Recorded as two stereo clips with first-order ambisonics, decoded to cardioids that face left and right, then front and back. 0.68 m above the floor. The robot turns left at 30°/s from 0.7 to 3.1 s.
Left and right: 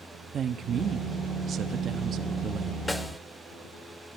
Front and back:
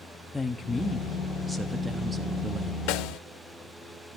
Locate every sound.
0.3 s a woman speaking: 70° right, 0.8 m; by 2.8 s 135° right, 0.8 m
2.9 s a snare drum: 5° left, 0.5 m; by 3.2 s straight ahead, 0.5 m